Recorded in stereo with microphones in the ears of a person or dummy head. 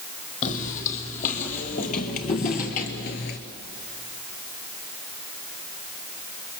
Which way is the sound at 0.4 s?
40° left (ahead or behind).